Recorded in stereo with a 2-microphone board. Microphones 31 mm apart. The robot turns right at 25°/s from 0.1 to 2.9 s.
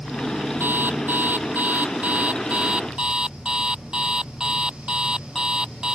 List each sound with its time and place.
0.6 s an alarm clock: 90° right; by 6.0 s 30° right